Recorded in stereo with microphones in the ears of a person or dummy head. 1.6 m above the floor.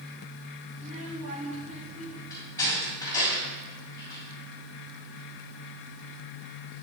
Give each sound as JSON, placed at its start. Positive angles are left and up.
{"t": 0.8, "sound": "a child speaking", "side_deg": -35, "distance_m": 1.8}
{"t": 2.3, "sound": "a door slam", "side_deg": 25, "distance_m": 6.0}